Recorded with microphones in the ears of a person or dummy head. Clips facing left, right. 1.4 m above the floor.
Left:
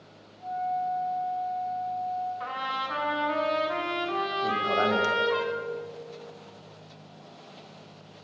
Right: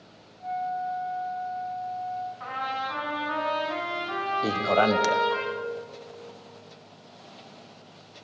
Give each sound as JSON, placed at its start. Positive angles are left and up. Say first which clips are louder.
{"t": 0.4, "sound": "a flute", "louder": "left 1 dB", "side_deg": -40, "distance_m": 1.7}
{"t": 2.4, "sound": "a trumpet", "louder": "right 2 dB", "side_deg": 65, "distance_m": 2.0}
{"t": 4.4, "sound": "a man speaking", "louder": "right 5 dB", "side_deg": -80, "distance_m": 0.5}